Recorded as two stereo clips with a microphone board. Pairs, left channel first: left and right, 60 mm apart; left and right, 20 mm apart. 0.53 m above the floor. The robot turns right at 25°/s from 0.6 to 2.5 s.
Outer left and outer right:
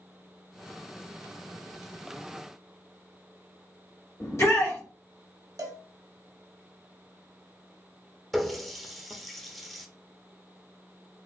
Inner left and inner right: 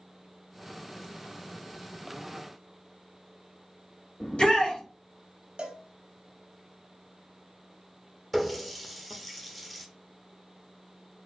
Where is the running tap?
5° left (ahead or behind), 0.6 m.